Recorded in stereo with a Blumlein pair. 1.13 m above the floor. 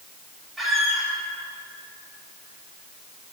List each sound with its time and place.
0.6 s a squeak: 10° right, 1.5 m